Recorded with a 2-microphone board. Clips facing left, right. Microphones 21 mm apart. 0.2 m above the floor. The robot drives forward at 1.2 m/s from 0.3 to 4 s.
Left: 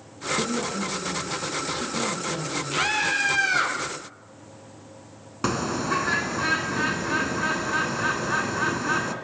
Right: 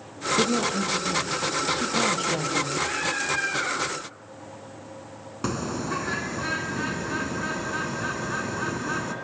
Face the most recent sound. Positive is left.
turn(degrees=20)  # may be behind; listen again after turning